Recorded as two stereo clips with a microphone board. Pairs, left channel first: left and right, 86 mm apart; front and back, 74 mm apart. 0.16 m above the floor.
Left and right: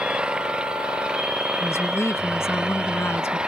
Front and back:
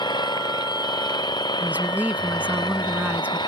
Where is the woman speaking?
125° left.